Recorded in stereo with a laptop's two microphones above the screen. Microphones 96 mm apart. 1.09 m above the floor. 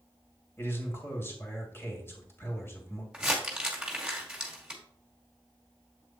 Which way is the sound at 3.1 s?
5° right (ahead or behind).